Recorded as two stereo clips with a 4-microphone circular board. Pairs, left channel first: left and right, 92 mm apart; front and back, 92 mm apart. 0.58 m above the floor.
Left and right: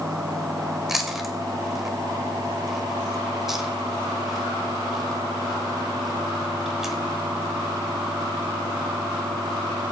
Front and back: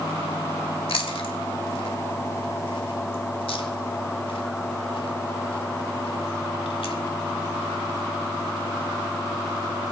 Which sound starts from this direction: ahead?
Chewing, at 0.9 s.